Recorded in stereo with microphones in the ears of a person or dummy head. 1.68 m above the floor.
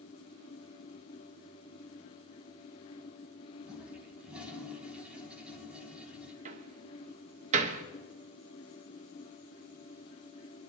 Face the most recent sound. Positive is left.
turn(degrees=-40)  # may be behind; listen again after turning